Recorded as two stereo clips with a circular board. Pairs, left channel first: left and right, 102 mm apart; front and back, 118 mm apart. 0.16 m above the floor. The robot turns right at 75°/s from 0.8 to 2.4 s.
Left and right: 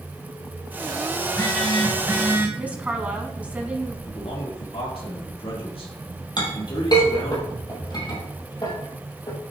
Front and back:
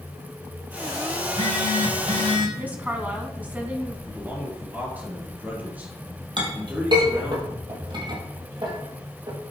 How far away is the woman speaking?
About 1.1 m.